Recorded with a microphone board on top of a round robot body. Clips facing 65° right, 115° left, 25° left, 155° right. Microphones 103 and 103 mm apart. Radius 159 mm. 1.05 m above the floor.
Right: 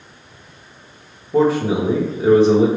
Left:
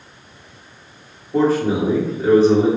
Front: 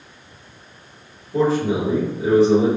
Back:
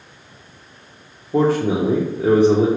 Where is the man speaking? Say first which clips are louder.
Right 1 dB, back 2 dB; 140° right, 1.1 m.